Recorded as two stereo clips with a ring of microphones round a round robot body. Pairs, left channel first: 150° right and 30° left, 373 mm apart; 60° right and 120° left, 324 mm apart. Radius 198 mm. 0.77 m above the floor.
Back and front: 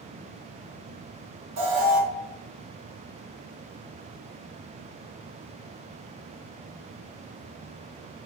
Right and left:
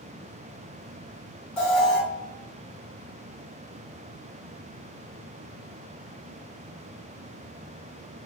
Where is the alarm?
25° left, 1.4 m.